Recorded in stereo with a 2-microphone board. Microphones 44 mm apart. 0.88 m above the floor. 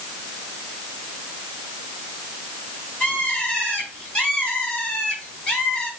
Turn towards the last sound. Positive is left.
turn(degrees=15)  # may be behind; listen again after turning